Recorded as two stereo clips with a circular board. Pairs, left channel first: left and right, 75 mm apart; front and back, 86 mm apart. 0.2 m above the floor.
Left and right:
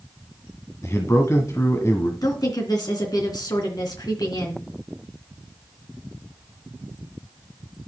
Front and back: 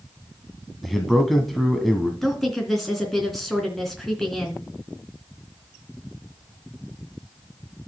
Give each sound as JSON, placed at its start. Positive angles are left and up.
{"t": 0.8, "sound": "a man speaking", "azimuth_deg": 90, "distance_m": 1.5}
{"t": 2.2, "sound": "a woman speaking", "azimuth_deg": 85, "distance_m": 3.0}